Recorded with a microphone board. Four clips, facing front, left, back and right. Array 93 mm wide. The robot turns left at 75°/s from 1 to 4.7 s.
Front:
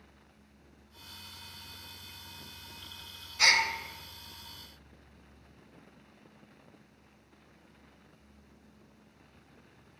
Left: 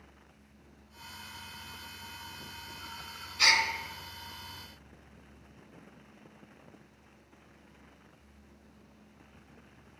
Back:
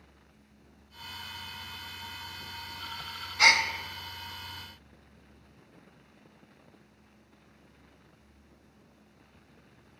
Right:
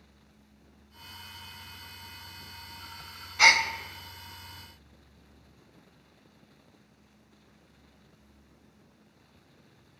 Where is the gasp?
110° right, 0.6 m; by 3.6 s 130° right, 0.6 m.